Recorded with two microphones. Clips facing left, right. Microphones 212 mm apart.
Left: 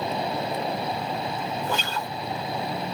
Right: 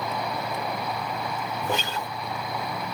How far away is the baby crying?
I don't hear a baby crying.